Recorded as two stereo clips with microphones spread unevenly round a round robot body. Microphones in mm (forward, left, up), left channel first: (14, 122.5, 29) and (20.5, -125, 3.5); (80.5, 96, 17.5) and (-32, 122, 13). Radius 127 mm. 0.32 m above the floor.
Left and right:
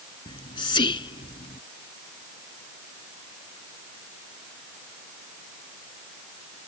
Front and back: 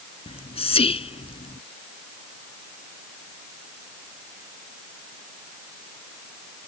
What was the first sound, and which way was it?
Whispering, 20° left.